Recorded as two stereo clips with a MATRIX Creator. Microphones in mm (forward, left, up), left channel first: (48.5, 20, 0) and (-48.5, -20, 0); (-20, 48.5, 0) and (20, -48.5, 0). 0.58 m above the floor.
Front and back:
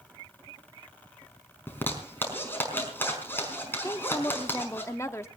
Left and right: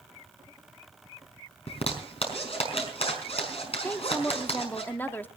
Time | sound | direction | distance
1.7 | a zipper | 90° left | 5 m
3.8 | a woman speaking | 60° left | 1.2 m